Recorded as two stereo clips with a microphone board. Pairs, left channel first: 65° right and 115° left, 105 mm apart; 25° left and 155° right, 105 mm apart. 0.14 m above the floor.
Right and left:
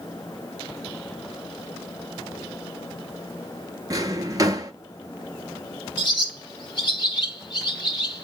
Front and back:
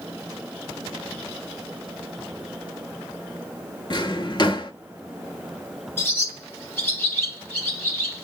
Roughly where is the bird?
Ahead right.